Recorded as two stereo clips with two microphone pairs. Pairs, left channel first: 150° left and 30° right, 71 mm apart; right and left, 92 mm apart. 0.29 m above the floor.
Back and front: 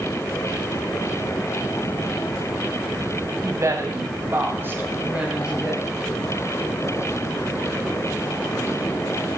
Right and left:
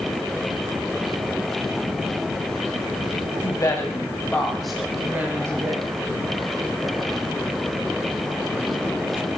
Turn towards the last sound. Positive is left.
turn(degrees=55)